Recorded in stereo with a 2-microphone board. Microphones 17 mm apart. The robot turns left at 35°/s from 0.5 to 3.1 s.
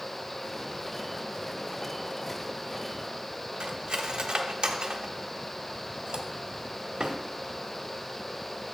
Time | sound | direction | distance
3.6 | cutlery clinking | 55° right (ahead or behind) | 1.0 m